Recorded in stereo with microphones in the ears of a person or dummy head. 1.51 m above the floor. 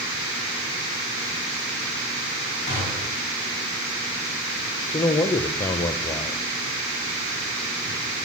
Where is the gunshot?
45° left (ahead or behind), 4.5 m.